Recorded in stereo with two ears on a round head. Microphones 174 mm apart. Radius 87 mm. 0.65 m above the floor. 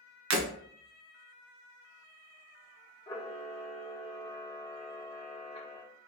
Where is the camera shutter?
25° left (ahead or behind), 1.2 m.